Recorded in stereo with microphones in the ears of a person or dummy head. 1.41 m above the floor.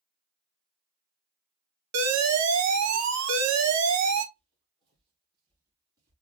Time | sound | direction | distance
1.9 | an alarm | 85° right | 0.9 m
4.3 | footsteps | 30° right (ahead or behind) | 2.5 m